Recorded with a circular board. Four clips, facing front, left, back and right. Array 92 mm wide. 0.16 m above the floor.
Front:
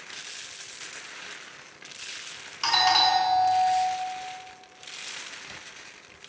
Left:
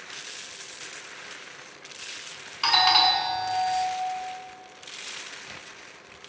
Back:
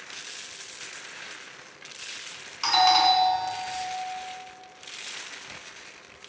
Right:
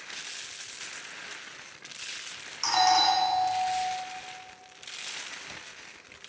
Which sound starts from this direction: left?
A doorbell, at 2.6 s.